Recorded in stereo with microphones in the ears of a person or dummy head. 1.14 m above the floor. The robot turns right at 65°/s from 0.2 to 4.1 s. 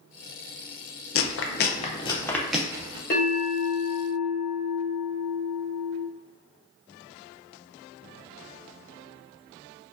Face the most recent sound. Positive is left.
turn(degrees=160)